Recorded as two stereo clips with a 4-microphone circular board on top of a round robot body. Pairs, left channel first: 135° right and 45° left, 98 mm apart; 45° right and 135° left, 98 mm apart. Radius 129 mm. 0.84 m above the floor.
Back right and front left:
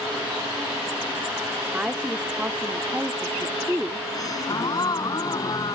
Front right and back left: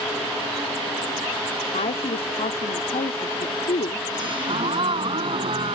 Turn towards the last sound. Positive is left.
turn(degrees=170)